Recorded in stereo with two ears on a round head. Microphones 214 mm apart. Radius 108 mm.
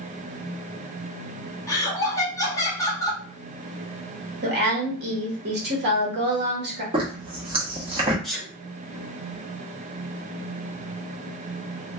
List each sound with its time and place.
1.7 s laughter: 15° left (ahead or behind), 0.9 m
4.4 s a woman speaking: 45° right (ahead or behind), 1.0 m
6.9 s a zipper: 25° right (ahead or behind), 0.9 m
8.2 s a sneeze: centre (ahead or behind), 1.2 m